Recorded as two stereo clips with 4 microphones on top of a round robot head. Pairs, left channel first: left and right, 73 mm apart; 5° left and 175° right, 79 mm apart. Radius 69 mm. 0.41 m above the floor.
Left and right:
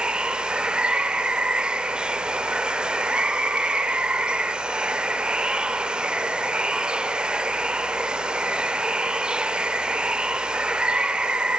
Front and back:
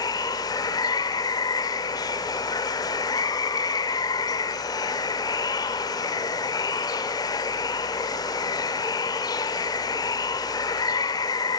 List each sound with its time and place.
0.0 s running water: 15° right, 1.0 m